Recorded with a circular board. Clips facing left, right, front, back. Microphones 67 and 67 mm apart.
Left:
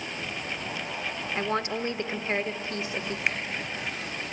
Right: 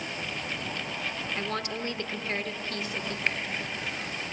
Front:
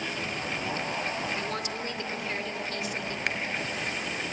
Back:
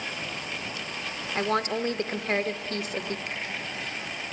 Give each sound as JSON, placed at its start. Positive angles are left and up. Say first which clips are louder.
{"t": 1.4, "sound": "a woman speaking", "louder": "left 7 dB, back 6 dB", "azimuth_deg": 150, "distance_m": 1.1}
{"t": 3.3, "sound": "a finger snap", "louder": "left 1 dB, front 5 dB", "azimuth_deg": 10, "distance_m": 2.0}